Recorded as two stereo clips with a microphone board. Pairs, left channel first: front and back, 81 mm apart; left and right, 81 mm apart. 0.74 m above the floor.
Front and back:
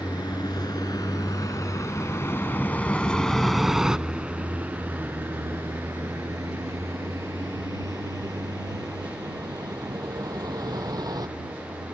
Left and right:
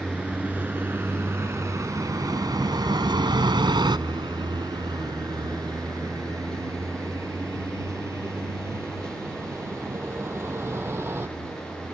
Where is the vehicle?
20° right; by 11.9 s 150° right.